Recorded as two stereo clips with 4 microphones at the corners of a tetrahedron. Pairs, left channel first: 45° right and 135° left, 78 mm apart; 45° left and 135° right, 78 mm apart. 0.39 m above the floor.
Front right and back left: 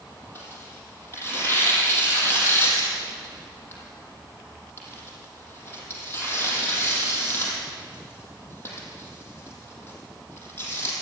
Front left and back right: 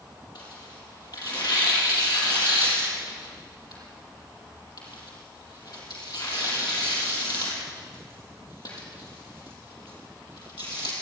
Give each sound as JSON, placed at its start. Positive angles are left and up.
{"t": 0.3, "sound": "tearing paper", "azimuth_deg": 15, "distance_m": 6.0}